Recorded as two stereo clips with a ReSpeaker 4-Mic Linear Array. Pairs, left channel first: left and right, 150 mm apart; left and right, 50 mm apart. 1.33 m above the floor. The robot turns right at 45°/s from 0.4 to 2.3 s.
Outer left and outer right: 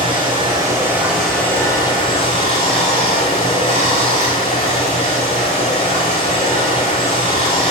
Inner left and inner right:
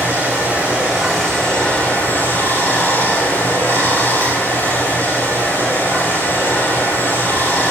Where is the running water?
40° right, 6.5 m; by 7.7 s 50° left, 6.5 m.